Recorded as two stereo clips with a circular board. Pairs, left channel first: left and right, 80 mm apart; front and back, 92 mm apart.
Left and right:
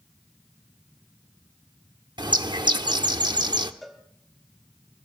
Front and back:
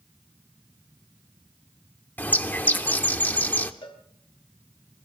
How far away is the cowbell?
About 1.8 m.